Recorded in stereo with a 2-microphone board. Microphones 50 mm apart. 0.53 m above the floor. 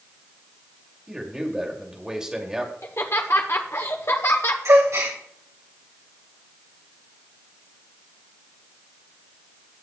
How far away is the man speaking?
About 2.5 m.